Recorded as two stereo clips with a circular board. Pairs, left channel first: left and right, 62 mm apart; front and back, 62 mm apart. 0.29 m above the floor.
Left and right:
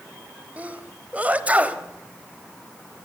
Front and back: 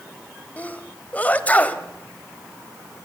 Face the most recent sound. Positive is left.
turn(degrees=-45)